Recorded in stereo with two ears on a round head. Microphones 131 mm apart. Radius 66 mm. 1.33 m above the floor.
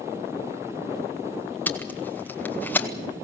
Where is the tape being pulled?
10° left (ahead or behind), 1.7 m.